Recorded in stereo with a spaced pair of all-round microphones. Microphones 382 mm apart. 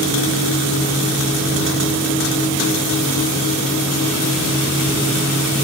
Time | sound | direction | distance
0.0 | a fan | 70° left (ahead or behind) | 8.5 m